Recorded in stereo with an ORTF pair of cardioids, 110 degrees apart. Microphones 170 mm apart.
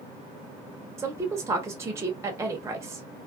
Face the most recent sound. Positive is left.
turn(degrees=-15)